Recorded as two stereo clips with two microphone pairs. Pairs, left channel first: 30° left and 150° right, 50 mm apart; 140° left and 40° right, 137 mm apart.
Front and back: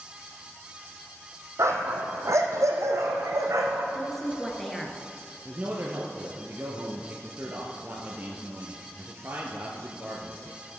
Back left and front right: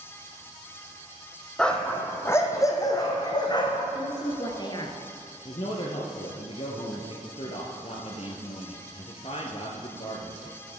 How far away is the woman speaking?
About 1.4 m.